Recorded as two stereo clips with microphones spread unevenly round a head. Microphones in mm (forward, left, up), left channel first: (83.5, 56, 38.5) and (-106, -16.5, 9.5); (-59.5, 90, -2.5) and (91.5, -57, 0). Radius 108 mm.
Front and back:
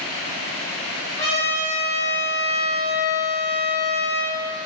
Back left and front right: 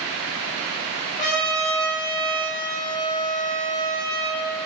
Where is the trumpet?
85° left, 0.9 m.